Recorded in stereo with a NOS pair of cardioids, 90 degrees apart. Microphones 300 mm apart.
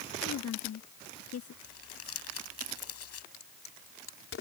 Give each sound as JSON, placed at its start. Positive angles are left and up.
{"t": 0.2, "sound": "a woman speaking", "azimuth_deg": 55}
{"t": 1.6, "sound": "crumpling", "azimuth_deg": 55}
{"t": 3.3, "sound": "a crack", "azimuth_deg": 45}